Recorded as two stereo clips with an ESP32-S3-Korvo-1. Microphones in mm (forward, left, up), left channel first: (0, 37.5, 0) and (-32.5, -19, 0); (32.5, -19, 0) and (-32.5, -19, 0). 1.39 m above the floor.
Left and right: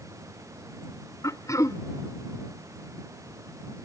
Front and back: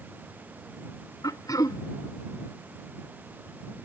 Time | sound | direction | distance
1.2 | throat clearing | 25° left | ?